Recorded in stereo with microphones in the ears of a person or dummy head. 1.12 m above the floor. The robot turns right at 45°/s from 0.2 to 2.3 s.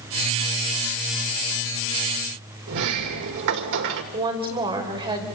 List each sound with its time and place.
2.7 s a sliding door: 70° right (ahead or behind), 2 m
4.1 s a woman speaking: 30° right (ahead or behind), 5 m